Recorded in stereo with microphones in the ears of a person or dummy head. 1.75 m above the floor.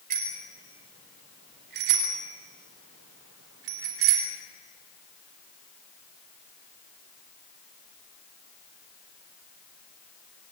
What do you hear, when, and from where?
0.1 s a bicycle bell: 50° right (ahead or behind), 5 m; by 4.3 s 75° right (ahead or behind), 4 m